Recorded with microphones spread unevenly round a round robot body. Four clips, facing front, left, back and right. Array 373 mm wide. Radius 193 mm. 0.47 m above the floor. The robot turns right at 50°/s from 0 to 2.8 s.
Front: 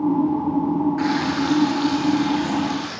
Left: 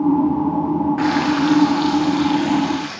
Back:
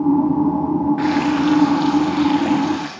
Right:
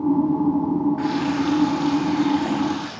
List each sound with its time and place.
1.0 s frying: 105° left, 8.5 m; by 2.9 s 165° right, 8.5 m